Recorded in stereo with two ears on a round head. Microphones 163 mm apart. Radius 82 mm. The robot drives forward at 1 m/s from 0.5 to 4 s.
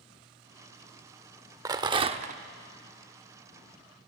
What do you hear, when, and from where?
1.6 s a rattle: 20° right (ahead or behind), 1.0 m; by 2.4 s 45° right (ahead or behind), 0.5 m